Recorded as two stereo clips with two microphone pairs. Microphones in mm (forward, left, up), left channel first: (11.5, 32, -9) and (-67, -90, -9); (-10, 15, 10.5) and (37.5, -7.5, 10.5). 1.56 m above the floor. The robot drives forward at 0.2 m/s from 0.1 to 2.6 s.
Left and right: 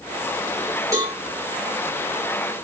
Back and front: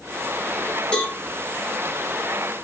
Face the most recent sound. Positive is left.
turn(degrees=-165)